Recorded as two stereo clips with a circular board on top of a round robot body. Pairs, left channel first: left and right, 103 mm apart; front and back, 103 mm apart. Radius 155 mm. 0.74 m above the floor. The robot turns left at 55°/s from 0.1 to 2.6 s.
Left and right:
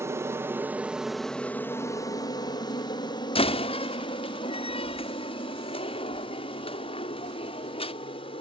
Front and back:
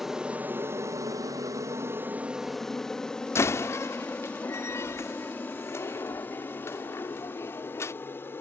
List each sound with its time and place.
0.0 s an aircraft: 100° right; by 8.4 s 65° left
3.4 s a door slam: 65° left